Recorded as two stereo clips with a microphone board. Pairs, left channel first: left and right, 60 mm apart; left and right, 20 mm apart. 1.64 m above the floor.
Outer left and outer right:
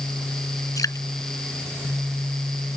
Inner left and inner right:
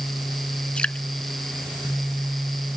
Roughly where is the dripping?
Left.